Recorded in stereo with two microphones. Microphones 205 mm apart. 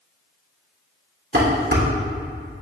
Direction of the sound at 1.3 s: 60° right (ahead or behind).